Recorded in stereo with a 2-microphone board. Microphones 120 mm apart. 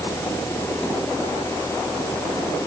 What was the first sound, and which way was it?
Only background noise.